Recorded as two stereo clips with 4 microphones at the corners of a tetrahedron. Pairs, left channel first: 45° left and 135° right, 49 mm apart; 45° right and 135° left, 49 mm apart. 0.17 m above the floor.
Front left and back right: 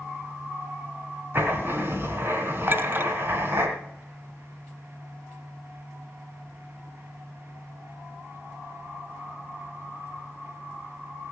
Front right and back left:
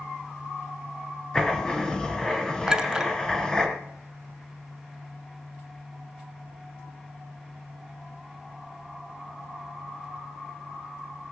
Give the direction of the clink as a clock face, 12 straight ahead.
5 o'clock.